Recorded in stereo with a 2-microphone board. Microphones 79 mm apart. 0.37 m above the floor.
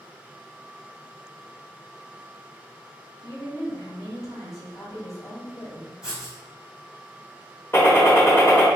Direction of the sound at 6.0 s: 10° right (ahead or behind).